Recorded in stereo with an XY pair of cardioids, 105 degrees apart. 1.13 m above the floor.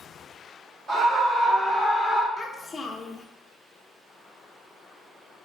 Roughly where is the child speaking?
Ahead left.